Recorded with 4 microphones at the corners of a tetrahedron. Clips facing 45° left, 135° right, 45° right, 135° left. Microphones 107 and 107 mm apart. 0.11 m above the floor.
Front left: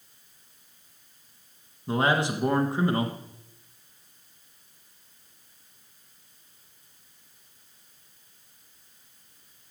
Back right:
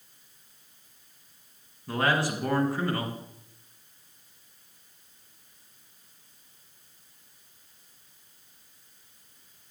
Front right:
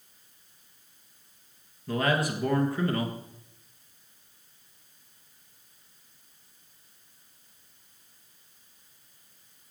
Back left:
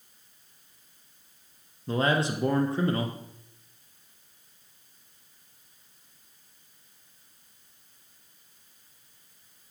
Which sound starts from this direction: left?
A man speaking, at 1.9 s.